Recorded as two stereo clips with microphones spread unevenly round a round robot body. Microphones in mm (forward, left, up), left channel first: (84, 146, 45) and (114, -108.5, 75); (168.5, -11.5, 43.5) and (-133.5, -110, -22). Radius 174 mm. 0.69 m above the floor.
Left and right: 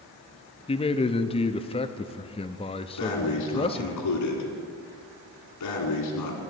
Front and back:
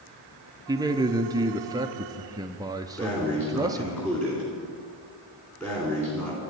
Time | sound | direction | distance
0.7 | a man speaking | 140° left | 0.7 m
3.0 | breathing | 100° left | 2.5 m